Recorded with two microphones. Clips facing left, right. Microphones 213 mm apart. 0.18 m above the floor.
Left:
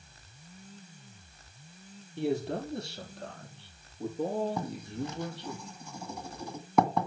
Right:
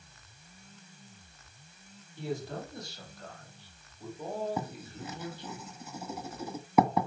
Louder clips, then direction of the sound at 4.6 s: Left 3 dB; 5° right (ahead or behind).